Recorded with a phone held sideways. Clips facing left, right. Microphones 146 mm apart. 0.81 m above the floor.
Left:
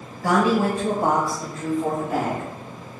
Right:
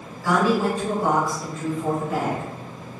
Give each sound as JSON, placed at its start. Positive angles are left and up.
{"t": 0.2, "sound": "a woman speaking", "side_deg": 60, "distance_m": 0.9}